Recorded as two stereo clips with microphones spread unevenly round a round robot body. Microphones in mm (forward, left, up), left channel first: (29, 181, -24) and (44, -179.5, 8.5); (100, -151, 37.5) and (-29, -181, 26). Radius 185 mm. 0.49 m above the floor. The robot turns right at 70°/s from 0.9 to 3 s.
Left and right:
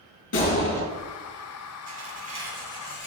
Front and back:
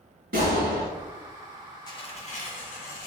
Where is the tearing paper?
45° right, 2 m; by 3.1 s 35° left, 2 m.